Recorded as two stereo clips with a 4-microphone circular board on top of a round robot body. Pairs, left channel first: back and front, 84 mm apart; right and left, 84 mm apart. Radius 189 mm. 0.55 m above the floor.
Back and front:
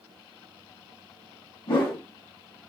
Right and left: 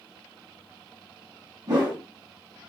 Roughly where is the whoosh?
Behind left.